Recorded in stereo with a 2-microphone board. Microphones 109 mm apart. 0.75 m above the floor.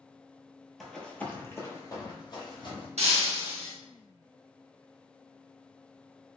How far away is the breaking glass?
About 0.8 m.